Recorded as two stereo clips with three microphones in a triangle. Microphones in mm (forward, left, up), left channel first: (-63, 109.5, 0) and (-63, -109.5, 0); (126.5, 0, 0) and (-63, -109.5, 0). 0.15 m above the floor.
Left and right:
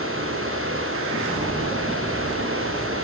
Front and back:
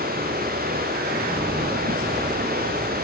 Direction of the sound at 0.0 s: 105° right.